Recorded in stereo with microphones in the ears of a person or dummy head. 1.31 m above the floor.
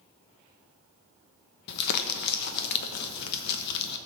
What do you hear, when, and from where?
1.7 s crumpling: 60° left (ahead or behind), 1.0 m